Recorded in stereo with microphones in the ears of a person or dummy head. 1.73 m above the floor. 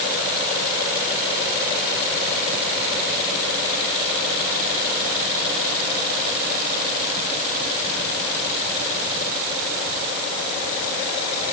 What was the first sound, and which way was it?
Only background noise.